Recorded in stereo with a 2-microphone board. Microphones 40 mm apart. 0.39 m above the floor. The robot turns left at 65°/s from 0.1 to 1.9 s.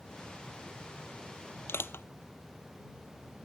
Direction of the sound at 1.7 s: 80° left.